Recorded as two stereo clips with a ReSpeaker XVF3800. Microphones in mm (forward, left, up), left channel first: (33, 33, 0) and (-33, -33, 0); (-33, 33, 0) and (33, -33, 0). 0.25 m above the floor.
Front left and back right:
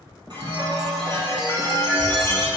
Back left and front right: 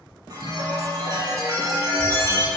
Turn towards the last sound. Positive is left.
turn(degrees=-95)